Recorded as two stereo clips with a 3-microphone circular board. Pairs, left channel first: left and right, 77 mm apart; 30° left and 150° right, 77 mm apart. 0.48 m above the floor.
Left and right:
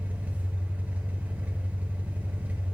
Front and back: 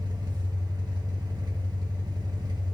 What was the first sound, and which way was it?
An engine running, 160° right.